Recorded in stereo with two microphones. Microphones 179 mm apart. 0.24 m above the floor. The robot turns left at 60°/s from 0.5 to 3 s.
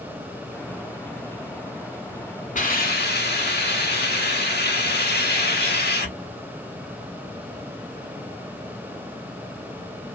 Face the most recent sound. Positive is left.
turn(degrees=65)  # may be behind; listen again after turning